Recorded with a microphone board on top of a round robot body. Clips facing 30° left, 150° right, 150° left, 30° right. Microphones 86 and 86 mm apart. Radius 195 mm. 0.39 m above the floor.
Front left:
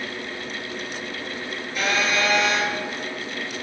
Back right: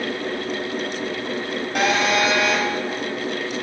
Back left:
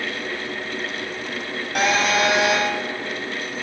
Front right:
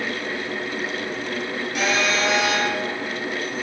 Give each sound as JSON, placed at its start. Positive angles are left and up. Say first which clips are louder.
{"t": 1.8, "sound": "a phone buzzing", "louder": "back right 4 dB, back left 3 dB", "azimuth_deg": -175, "distance_m": 2.0}